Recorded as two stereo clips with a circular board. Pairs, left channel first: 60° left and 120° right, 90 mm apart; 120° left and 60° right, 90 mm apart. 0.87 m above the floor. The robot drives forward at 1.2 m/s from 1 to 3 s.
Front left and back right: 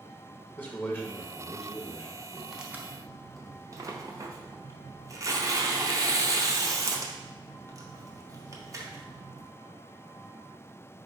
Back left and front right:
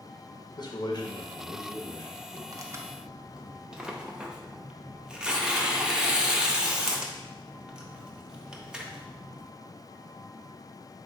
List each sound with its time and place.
0.6 s a man speaking: 125° left, 0.8 m; by 2.4 s 165° left, 2 m
2.5 s tearing paper: 30° right, 0.6 m; by 9.4 s 135° right, 0.5 m